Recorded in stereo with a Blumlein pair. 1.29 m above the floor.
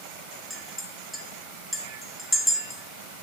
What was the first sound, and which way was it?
A clink, 10° left.